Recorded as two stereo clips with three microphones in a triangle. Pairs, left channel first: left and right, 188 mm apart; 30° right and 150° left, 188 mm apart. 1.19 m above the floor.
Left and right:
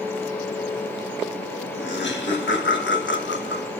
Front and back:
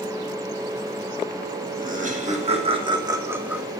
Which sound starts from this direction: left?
Laughter, at 1.8 s.